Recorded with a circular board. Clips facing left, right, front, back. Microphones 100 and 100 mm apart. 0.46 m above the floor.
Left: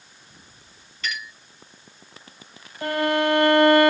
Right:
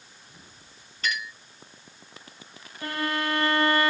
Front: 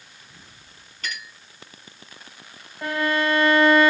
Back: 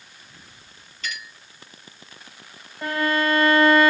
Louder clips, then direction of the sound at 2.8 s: Left 8 dB, even; 85° left.